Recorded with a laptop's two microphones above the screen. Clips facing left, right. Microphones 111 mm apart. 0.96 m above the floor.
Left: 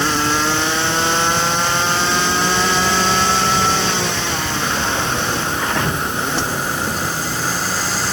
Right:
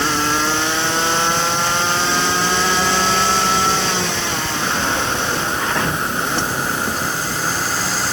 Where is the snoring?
No snoring in this recording.